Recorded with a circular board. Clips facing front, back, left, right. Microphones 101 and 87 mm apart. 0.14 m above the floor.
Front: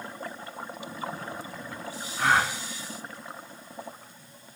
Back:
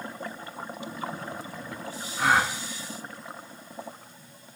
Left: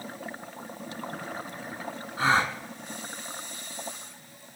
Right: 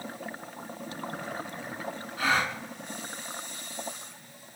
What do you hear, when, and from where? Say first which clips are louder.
2.2 s a gasp: back 1 dB, left 3 dB; 100° left, 0.6 m